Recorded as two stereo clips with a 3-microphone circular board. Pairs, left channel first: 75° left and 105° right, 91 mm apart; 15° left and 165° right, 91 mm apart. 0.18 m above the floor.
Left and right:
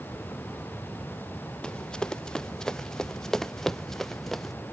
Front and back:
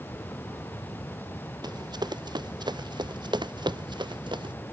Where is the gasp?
No gasp in this recording.